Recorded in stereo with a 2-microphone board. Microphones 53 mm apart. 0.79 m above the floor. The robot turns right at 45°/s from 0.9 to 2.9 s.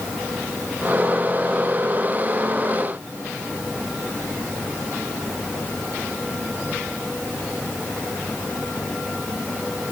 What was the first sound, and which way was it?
Only background noise.